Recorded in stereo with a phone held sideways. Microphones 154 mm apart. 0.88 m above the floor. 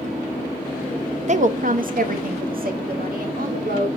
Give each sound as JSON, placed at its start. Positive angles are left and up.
{"t": 1.3, "sound": "a woman speaking", "side_deg": -50, "distance_m": 0.7}